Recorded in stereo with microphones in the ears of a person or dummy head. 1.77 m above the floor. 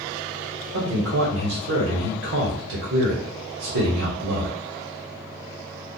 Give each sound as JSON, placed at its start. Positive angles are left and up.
{"t": 0.7, "sound": "a man speaking", "side_deg": -65, "distance_m": 1.2}